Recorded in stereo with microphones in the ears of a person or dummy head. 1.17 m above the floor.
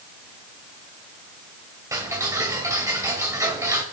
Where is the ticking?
20° right (ahead or behind), 2 m.